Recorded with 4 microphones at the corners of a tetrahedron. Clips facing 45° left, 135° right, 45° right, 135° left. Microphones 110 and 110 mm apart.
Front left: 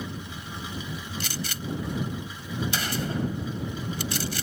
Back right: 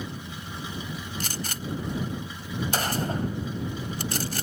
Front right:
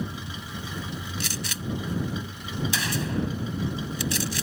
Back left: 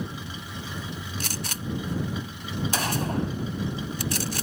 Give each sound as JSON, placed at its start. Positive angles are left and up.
{"t": 1.2, "sound": "a gunshot", "azimuth_deg": 180}